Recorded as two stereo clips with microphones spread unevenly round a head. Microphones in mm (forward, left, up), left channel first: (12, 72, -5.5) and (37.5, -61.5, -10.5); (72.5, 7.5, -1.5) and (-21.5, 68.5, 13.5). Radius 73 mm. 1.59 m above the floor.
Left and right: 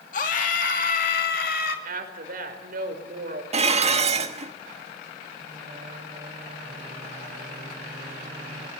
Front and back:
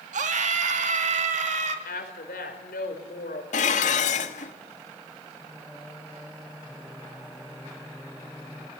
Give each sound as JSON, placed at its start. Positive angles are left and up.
{"t": 0.1, "sound": "a scream", "azimuth_deg": 140, "distance_m": 2.5}
{"t": 1.9, "sound": "a woman speaking", "azimuth_deg": -60, "distance_m": 4.5}
{"t": 3.5, "sound": "dishes clattering", "azimuth_deg": -45, "distance_m": 1.4}
{"t": 5.4, "sound": "singing", "azimuth_deg": -125, "distance_m": 1.2}